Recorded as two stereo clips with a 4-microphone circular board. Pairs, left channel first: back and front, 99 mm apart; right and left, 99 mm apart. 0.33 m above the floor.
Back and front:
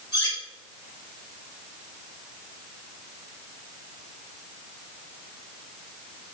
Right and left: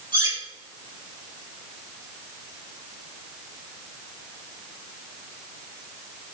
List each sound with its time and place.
0.1 s cutlery clinking: 130° left, 3.5 m